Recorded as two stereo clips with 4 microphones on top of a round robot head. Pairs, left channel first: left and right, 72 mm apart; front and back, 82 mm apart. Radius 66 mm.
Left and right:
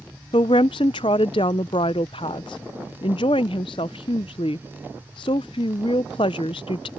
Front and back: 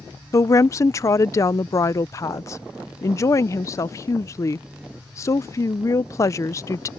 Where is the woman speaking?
50° left.